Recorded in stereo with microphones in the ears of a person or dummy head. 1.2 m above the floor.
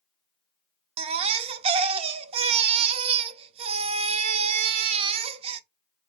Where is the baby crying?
35° right (ahead or behind), 0.6 m.